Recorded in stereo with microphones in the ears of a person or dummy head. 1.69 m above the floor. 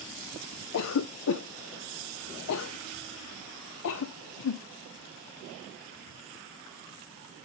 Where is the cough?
75° left (ahead or behind), 0.6 m.